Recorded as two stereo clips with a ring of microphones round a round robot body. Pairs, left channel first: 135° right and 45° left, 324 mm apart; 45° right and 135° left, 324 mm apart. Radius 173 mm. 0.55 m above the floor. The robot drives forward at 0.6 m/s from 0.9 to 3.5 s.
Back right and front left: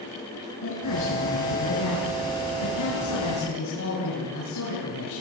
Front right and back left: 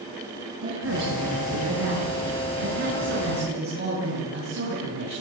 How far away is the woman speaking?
About 6.5 m.